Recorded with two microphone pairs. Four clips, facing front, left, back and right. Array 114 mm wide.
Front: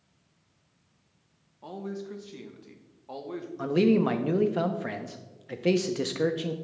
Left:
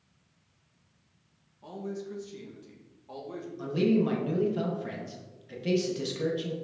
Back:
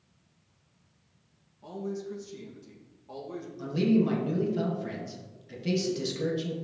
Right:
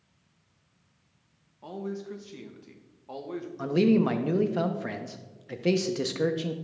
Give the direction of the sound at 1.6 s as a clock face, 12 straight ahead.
2 o'clock.